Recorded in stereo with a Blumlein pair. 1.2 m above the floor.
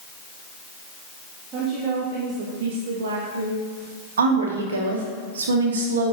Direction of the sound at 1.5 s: 30° right.